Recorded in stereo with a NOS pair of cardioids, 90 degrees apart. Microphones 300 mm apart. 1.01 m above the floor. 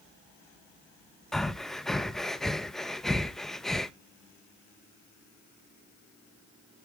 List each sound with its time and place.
1.3 s breathing: straight ahead, 0.5 m